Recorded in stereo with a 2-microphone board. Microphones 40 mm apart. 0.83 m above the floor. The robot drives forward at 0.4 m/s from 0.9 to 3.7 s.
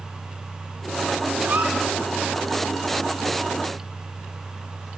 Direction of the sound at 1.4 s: 55° right (ahead or behind).